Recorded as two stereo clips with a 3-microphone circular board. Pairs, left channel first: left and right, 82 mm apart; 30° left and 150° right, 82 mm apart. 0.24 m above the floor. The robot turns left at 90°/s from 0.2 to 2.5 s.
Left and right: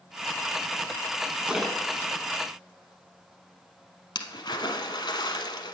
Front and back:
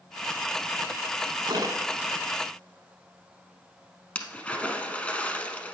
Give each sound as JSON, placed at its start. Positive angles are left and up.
{"t": 1.5, "sound": "a splash", "azimuth_deg": -165, "distance_m": 0.8}